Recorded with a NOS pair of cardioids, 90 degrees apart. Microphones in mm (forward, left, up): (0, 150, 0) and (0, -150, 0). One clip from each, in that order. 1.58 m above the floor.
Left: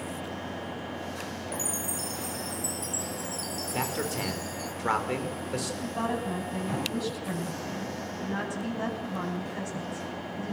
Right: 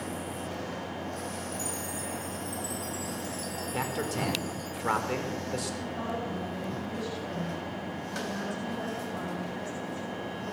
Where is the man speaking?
10° left, 5.5 m.